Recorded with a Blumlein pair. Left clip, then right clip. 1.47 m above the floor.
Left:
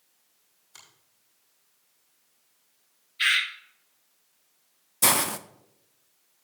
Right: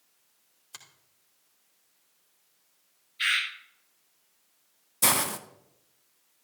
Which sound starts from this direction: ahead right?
A finger snap, at 0.7 s.